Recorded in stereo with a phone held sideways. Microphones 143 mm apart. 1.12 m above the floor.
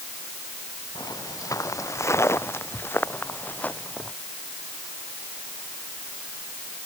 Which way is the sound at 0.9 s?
25° left (ahead or behind).